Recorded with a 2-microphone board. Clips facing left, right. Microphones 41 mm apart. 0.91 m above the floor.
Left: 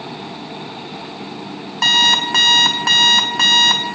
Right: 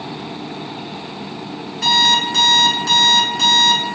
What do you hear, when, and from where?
1.8 s an alarm clock: 80° left, 1.1 m